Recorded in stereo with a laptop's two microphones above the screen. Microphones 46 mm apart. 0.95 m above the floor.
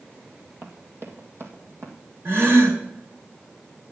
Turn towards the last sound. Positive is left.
turn(degrees=-60)  # may be behind; listen again after turning